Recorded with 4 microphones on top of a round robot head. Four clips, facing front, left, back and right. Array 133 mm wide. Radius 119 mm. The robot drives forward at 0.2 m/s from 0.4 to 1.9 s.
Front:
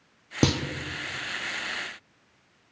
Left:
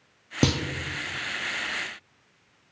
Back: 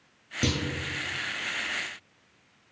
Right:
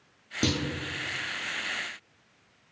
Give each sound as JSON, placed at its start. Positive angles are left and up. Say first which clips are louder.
{"t": 0.4, "sound": "a clunk", "louder": "left 4 dB, front 5 dB", "azimuth_deg": 40, "distance_m": 0.7}